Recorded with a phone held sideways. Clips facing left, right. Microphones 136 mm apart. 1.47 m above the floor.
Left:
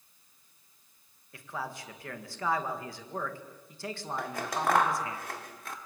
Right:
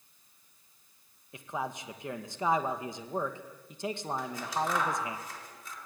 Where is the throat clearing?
I don't hear throat clearing.